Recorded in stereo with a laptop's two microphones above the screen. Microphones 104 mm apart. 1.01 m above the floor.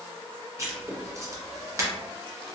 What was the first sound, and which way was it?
Writing, 30° right (ahead or behind).